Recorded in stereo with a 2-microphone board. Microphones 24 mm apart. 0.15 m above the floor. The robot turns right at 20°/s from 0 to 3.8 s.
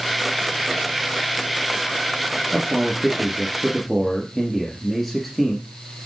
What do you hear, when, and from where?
2.5 s a man speaking: 20° right (ahead or behind), 3 m; by 5.7 s 5° left (ahead or behind), 3 m